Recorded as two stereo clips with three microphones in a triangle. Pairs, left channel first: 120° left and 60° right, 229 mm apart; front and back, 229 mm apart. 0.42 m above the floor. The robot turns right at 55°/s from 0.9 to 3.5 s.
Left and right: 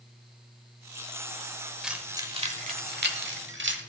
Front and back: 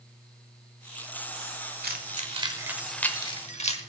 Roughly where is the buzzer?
I don't hear a buzzer.